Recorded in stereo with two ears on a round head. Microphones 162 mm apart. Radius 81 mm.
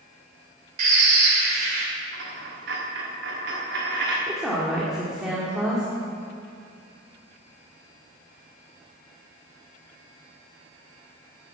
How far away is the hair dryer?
I don't hear a hair dryer.